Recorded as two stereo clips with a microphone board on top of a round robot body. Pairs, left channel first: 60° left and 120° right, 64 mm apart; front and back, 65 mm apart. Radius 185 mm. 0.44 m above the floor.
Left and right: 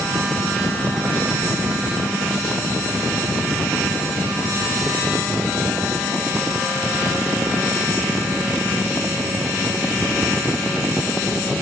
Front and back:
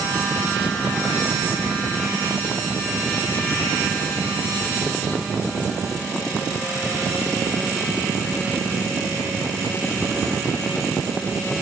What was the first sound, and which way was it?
Only background noise.